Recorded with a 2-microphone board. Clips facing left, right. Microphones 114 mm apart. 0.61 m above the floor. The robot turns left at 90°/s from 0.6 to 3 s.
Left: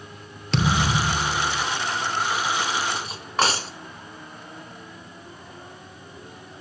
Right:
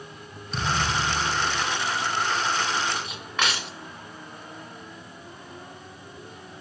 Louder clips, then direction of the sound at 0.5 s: Left 4 dB; 95° left.